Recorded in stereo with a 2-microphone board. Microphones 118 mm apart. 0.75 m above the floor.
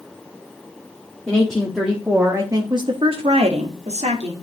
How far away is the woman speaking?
About 1.7 m.